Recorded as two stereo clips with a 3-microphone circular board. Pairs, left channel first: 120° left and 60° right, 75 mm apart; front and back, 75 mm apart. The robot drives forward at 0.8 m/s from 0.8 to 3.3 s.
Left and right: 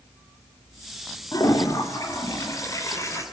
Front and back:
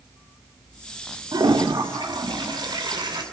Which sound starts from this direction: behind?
A toilet flushing, at 1.3 s.